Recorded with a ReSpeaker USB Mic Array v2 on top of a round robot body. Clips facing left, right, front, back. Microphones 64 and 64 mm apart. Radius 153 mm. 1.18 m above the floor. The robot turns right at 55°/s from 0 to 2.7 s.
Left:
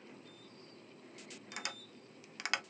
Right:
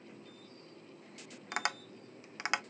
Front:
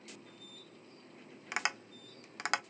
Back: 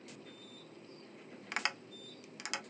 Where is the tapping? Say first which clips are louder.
Right 10 dB, front 2 dB; 80° right, 0.7 m; by 2.6 s 20° right, 0.7 m.